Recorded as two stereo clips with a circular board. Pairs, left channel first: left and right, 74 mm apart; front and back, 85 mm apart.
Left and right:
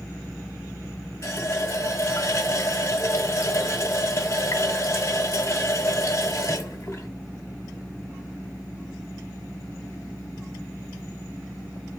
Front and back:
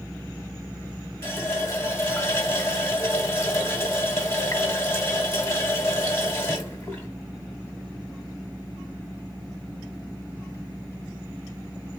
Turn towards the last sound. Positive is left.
turn(degrees=50)